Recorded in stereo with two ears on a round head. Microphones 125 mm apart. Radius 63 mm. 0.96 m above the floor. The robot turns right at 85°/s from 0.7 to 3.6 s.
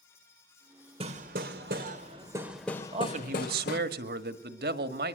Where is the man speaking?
140° right, 1.7 m; by 5.2 s 80° right, 1.7 m.